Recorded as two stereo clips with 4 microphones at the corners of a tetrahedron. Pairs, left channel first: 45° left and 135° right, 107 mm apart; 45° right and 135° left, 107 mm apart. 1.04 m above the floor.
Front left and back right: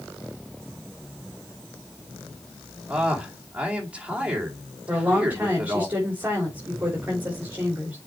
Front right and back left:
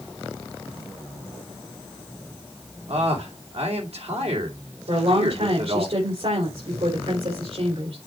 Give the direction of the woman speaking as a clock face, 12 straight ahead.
7 o'clock.